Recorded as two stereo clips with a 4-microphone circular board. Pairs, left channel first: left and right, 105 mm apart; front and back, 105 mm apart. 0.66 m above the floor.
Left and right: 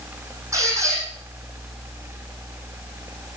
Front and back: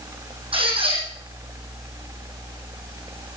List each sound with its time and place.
0.5 s a squeak: 150° right, 6 m